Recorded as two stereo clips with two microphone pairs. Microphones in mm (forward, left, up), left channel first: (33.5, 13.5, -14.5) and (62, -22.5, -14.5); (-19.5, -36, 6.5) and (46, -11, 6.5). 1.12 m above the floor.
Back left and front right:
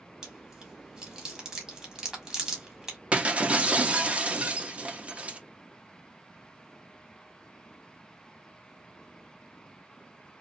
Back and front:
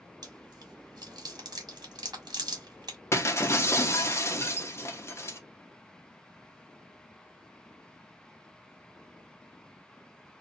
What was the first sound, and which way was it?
Chewing, 25° left.